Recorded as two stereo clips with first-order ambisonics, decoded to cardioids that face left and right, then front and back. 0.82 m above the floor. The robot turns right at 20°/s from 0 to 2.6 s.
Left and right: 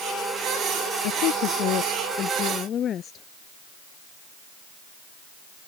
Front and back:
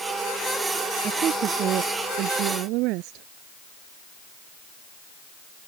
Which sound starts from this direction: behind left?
A woman speaking, at 1.0 s.